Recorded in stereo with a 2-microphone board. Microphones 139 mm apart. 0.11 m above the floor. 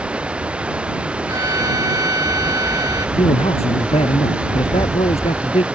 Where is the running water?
10° right (ahead or behind).